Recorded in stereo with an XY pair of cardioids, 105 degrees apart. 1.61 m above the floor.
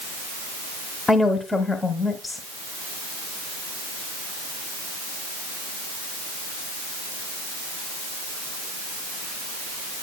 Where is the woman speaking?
25° left, 1.2 m.